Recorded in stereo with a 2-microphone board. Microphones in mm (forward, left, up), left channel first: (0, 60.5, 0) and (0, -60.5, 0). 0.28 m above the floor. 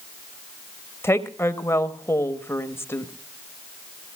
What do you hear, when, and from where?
1.0 s a woman speaking: 20° left (ahead or behind), 1.0 m